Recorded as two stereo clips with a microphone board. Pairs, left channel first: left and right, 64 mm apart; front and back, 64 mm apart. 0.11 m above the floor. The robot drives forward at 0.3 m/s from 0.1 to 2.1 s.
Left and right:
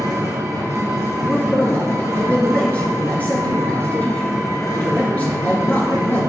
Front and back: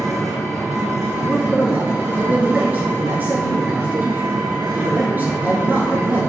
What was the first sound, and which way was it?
An engine running, 90° right.